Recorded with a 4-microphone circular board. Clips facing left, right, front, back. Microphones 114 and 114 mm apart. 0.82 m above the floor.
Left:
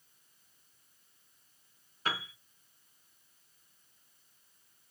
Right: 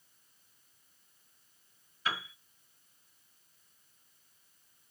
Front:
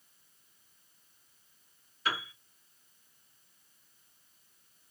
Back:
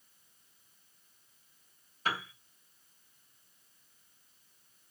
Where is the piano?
135° left, 3 m.